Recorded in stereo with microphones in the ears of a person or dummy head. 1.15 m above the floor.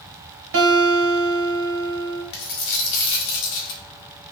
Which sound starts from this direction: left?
A dropped coin, at 2.3 s.